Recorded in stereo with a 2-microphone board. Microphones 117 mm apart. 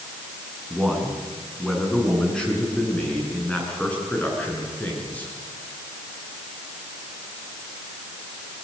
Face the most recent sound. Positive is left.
turn(degrees=15)  # may be behind; listen again after turning